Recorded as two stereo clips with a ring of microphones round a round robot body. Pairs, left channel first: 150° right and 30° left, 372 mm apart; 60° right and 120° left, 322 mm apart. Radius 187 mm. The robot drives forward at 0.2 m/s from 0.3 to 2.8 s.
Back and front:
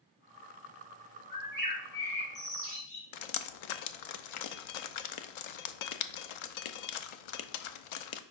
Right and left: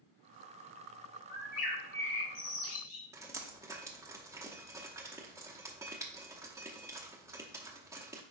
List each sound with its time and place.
1.3 s a bird: 80° right, 1.9 m; by 3.1 s 90° right, 1.9 m
3.1 s dripping: 155° right, 0.6 m